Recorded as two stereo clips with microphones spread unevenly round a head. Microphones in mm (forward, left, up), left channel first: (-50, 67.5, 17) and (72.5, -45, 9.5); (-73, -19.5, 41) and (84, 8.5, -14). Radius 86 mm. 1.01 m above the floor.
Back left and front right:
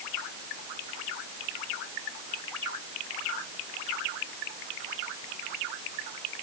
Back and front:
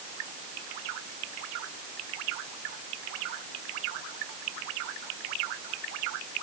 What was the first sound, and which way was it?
Only background noise.